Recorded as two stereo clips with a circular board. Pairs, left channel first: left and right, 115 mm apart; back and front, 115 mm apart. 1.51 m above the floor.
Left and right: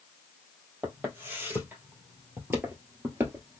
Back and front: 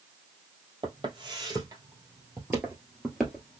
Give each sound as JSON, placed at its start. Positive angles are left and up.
{"t": 0.8, "sound": "footsteps", "azimuth_deg": -20, "distance_m": 2.0}